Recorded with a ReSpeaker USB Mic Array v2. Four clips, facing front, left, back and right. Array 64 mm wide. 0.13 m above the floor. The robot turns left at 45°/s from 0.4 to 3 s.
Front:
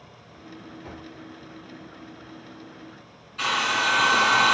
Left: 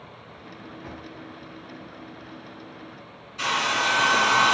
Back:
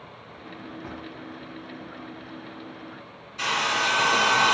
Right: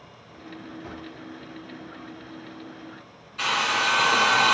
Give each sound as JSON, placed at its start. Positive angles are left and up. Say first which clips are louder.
{"t": 0.8, "sound": "a drawer", "louder": "left 1 dB, back 3 dB", "azimuth_deg": 175, "distance_m": 1.7}
{"t": 3.4, "sound": "a hair dryer", "louder": "even, front 1 dB", "azimuth_deg": -35, "distance_m": 1.6}